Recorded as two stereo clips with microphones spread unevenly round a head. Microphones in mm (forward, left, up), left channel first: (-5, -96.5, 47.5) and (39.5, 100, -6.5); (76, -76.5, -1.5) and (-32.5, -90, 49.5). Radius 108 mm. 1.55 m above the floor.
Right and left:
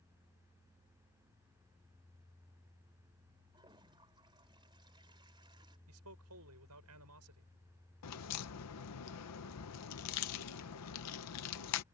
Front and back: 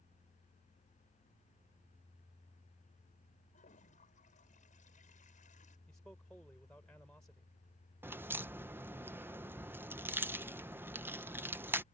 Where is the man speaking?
95° left.